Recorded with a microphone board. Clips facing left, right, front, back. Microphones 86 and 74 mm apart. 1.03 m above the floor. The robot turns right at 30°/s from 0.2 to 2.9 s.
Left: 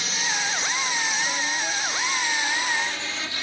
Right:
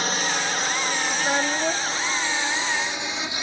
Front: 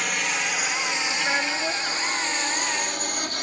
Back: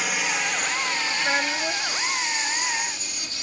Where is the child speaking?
100° right; by 2.0 s 75° right.